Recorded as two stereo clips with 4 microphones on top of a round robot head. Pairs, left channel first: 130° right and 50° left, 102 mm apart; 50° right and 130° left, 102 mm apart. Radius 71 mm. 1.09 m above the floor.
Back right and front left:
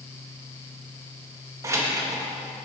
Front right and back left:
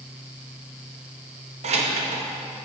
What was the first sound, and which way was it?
Keys jangling, 110° left.